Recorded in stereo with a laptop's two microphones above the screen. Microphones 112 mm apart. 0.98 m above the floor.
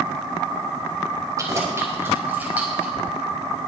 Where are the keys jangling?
30° right (ahead or behind), 2.5 m; by 2.9 s 10° right (ahead or behind), 2.5 m.